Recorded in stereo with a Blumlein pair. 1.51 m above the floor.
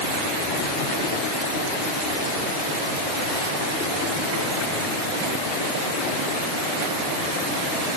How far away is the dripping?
I don't hear dripping.